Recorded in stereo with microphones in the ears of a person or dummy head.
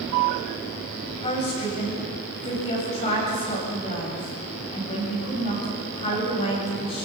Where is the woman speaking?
30° left (ahead or behind), 8.5 m.